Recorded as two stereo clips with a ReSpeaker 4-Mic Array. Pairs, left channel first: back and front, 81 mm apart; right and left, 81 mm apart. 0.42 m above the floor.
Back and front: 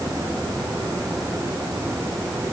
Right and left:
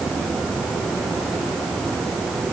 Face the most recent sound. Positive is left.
No sound to turn to.